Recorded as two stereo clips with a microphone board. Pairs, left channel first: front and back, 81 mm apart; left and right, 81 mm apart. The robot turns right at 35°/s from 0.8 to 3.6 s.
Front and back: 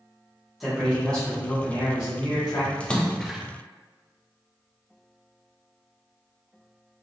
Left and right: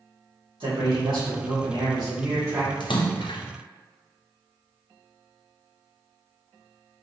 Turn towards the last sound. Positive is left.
turn(degrees=100)